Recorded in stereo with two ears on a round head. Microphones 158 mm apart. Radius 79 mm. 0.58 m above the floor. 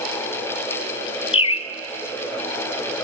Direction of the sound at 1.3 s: 30° left (ahead or behind).